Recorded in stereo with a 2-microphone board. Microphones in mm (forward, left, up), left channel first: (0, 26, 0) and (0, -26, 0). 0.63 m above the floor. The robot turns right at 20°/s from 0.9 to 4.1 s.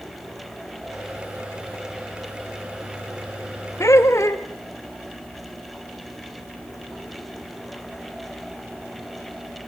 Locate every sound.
3.8 s laughter: 70° left (ahead or behind), 1.7 m